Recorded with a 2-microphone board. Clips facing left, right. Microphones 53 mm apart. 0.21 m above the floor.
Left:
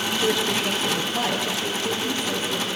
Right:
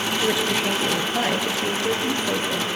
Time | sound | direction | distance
0.2 | a woman speaking | 5° right (ahead or behind) | 3 m